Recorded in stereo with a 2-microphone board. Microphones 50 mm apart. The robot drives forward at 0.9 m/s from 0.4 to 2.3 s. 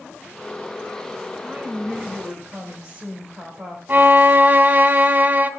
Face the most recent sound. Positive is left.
turn(degrees=-35)  # may be behind; listen again after turning